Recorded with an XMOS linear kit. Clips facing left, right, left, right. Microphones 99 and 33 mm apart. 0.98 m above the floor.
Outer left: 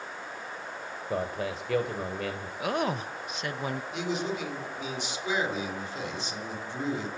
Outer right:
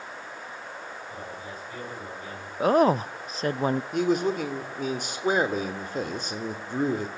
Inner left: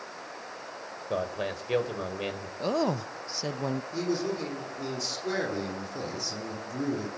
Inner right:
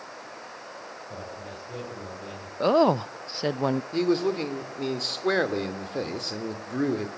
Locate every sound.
1.1 s a man speaking: 85° left, 4.5 m
2.6 s a woman speaking: 35° right (ahead or behind), 0.5 m
3.9 s a man speaking: 45° right (ahead or behind), 3 m